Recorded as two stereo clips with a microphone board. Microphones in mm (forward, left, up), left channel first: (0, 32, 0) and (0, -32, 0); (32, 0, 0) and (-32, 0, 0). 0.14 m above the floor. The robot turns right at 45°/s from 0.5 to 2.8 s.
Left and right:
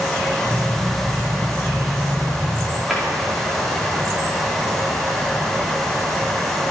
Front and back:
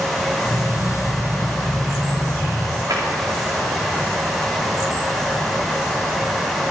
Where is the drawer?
175° left, 3.5 m.